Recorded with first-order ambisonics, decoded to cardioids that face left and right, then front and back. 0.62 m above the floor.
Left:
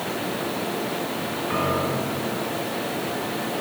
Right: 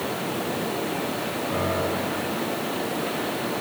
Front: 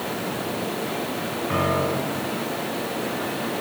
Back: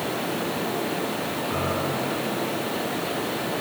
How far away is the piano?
About 6.5 m.